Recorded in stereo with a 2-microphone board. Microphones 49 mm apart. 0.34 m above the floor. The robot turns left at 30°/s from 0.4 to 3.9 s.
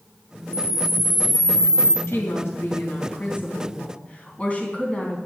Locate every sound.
0.5 s a camera shutter: 155° left, 3 m; by 2.0 s 110° left, 3 m
2.1 s a woman speaking: 85° left, 3.5 m; by 5.2 s 30° left, 3.5 m